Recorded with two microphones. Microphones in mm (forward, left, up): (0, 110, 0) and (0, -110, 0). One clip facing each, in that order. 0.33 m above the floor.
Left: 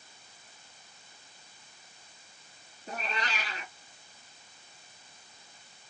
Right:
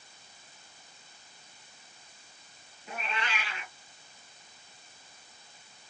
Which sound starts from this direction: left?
A cat meowing, at 2.9 s.